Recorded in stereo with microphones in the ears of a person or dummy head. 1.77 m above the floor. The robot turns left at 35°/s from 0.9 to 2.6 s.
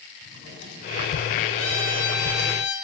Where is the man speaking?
I don't hear a man speaking.